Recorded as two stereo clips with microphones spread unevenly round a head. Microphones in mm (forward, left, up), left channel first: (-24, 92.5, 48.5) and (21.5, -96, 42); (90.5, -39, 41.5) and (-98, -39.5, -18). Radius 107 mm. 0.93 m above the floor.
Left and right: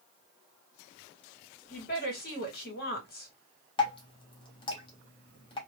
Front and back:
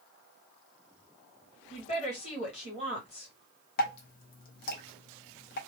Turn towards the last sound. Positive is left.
turn(degrees=40)